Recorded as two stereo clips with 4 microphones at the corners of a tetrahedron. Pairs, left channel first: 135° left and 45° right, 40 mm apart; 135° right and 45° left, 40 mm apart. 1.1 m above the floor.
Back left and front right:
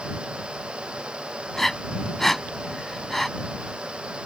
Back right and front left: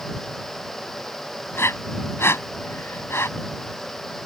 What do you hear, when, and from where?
1.5 s breathing: 140° right